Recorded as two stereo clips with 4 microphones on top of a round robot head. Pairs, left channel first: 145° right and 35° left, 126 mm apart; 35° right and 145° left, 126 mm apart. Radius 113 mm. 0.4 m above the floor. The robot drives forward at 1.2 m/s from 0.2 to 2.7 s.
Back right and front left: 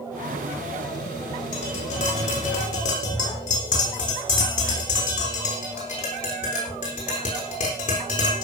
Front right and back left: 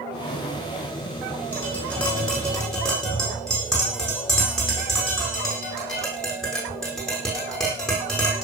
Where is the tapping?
110° right, 7 m; by 8.4 s 120° right, 7.5 m.